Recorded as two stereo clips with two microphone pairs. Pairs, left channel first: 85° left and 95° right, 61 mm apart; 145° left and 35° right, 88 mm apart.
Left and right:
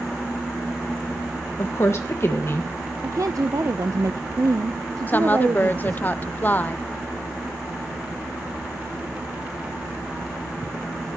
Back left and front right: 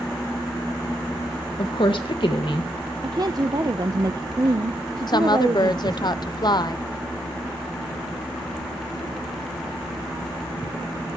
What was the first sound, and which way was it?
A woman speaking, 125° left.